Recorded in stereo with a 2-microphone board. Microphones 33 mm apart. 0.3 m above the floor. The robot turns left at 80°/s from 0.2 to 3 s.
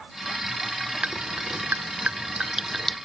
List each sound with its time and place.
1.0 s dripping: 35° right (ahead or behind); by 3.0 s 10° left (ahead or behind)